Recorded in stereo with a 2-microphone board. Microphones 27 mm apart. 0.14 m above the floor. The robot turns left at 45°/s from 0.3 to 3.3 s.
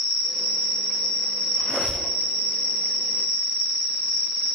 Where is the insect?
170° left, 1.3 m; by 4.6 s 35° left, 1.3 m.